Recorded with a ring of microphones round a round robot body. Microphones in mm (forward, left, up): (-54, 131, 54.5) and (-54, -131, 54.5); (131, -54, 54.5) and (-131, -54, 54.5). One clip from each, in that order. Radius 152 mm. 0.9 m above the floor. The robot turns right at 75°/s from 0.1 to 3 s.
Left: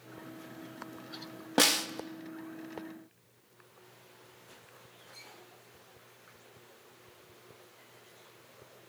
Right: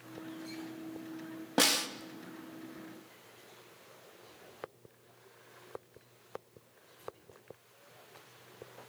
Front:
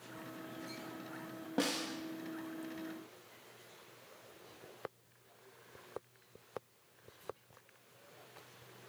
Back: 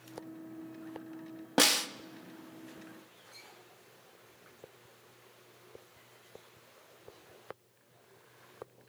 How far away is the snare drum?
About 0.6 m.